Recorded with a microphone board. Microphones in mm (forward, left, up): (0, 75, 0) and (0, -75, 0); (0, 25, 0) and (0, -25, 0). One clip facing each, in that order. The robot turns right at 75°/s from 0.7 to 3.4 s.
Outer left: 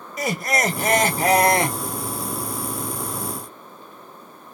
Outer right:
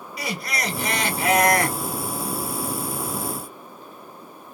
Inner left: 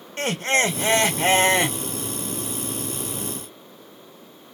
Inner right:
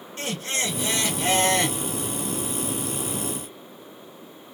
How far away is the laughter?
About 1.1 m.